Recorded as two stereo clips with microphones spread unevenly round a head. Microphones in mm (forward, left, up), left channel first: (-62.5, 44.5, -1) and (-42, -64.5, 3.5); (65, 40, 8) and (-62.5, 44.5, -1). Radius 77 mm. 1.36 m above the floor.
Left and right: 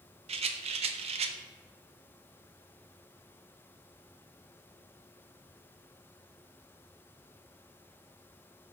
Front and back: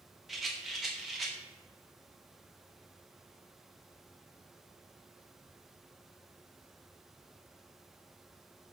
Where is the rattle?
90° right, 0.6 m.